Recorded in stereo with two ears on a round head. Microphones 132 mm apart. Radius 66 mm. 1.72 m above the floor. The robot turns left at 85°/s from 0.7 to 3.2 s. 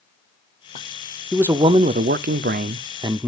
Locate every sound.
1.3 s a man speaking: straight ahead, 0.5 m; by 3.3 s 165° right, 0.5 m